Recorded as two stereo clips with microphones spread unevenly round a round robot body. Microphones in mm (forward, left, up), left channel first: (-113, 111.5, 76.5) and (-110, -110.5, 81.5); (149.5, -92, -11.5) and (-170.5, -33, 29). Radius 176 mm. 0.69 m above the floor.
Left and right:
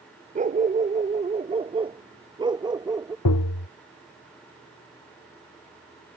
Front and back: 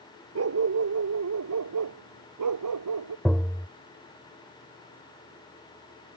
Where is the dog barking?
145° right; by 3.1 s 165° right.